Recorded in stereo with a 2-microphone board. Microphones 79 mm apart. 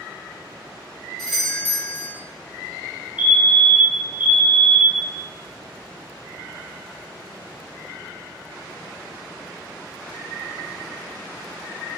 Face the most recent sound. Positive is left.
turn(degrees=-20)  # may be behind; listen again after turning